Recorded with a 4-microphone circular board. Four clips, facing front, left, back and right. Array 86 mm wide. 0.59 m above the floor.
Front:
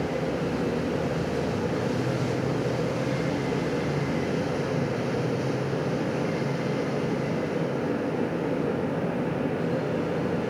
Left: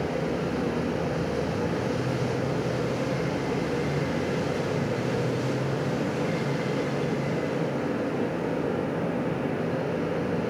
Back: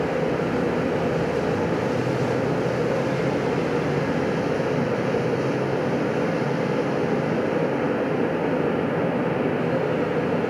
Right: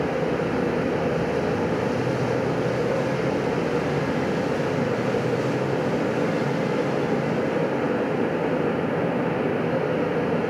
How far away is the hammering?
No hammering in this recording.